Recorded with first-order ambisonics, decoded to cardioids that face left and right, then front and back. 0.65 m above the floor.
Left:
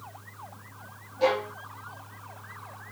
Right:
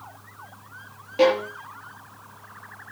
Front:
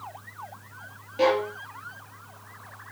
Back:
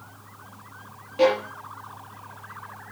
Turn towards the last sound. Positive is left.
turn(degrees=-95)